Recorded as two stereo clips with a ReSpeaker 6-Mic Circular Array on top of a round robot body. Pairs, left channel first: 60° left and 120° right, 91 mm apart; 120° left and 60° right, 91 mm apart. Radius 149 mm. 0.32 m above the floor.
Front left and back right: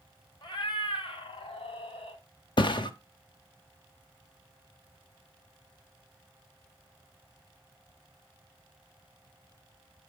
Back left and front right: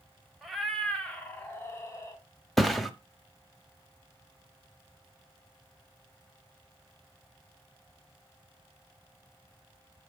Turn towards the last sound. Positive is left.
turn(degrees=30)